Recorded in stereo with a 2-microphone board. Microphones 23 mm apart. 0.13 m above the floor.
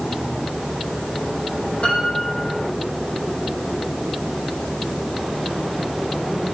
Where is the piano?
75° left (ahead or behind), 4 m.